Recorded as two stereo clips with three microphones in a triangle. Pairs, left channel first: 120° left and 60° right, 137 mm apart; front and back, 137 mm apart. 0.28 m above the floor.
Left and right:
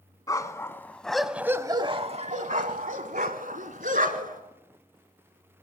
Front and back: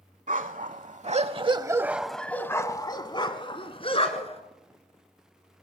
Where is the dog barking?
Straight behind, 1.0 m; by 4.4 s 45° right, 1.7 m.